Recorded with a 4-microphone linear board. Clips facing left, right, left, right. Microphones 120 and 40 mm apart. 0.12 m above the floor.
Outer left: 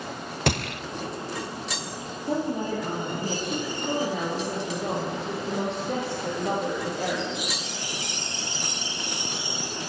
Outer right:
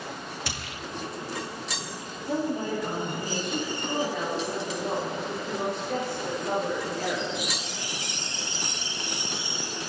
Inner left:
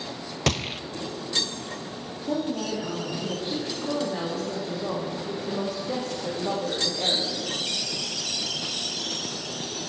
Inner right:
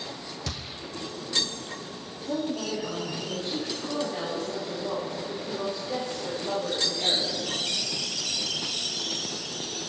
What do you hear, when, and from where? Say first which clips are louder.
0.5 s a gunshot: outer left 10 dB, inner left 15 dB; 70° left (ahead or behind), 0.6 m
2.2 s a woman speaking: outer left 1 dB, inner left 2 dB; 45° left (ahead or behind), 6 m
3.8 s a woman speaking: outer left 3 dB, inner left 4 dB; 75° left (ahead or behind), 5 m